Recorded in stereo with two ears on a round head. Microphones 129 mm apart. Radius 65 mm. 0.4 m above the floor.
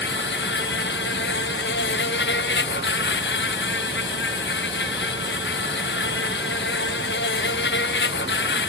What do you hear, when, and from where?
0.0 s an insect: 85° left